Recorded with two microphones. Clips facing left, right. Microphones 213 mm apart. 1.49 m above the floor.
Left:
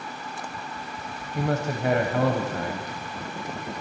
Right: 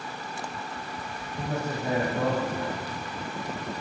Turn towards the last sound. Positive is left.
turn(degrees=85)